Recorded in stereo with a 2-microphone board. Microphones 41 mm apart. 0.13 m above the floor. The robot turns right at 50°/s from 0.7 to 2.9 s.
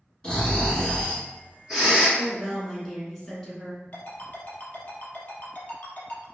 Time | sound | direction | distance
0.2 | snoring | 150° left | 2.0 m
2.2 | a woman speaking | 5° right (ahead or behind) | 1.1 m
3.9 | a ringtone | 45° left (ahead or behind) | 1.2 m